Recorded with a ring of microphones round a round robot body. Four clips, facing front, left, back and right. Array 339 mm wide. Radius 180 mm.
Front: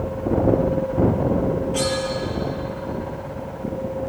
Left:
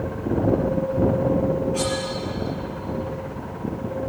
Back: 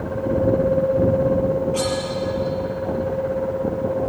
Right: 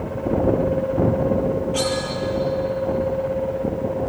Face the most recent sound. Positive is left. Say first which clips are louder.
# right 2 dB, back 1 dB
turn(degrees=-65)